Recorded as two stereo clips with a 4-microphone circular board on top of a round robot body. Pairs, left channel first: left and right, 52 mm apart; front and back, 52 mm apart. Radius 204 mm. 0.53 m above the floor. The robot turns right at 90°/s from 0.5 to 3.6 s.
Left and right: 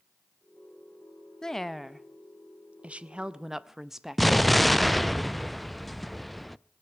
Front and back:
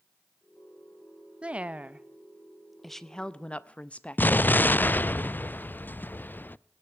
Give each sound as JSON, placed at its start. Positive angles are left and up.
{"t": 1.4, "sound": "a woman speaking", "azimuth_deg": 150, "distance_m": 0.7}
{"t": 4.2, "sound": "an explosion", "azimuth_deg": 0, "distance_m": 0.5}